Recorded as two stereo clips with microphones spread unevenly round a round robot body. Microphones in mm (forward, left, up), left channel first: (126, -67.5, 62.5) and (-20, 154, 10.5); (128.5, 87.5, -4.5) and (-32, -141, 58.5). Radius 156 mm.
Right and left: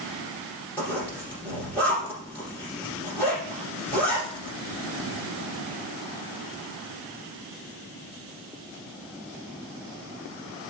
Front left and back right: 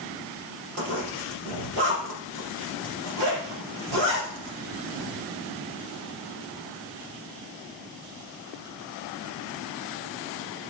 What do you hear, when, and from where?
0.8 s a zipper: 140° right, 3.5 m